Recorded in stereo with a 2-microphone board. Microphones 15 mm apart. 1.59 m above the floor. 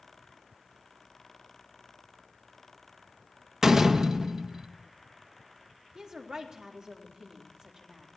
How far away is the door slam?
About 1.1 m.